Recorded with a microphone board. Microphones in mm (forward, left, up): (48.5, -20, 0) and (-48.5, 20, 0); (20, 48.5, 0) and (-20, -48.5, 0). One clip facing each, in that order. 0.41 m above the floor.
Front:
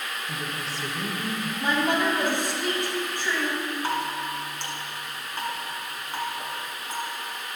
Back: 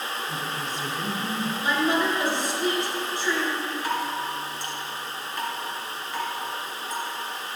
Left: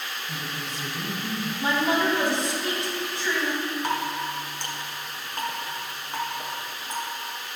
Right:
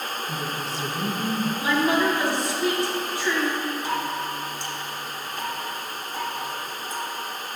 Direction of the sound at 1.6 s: 5° left.